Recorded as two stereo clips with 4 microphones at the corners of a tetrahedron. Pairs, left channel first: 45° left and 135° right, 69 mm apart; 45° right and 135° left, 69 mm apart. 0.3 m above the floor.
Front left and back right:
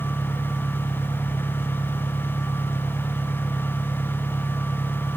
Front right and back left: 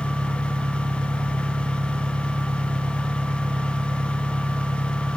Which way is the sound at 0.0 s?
140° left.